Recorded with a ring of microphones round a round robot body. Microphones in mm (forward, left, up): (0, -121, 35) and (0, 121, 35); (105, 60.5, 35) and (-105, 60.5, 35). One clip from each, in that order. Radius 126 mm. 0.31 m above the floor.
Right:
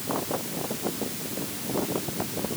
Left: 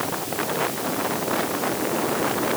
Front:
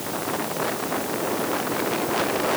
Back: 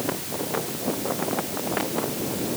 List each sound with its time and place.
Only background noise.